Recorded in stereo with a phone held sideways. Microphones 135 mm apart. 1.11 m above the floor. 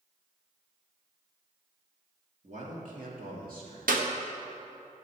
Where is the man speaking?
50° right (ahead or behind), 1.9 m; by 3.8 s 75° right (ahead or behind), 2 m.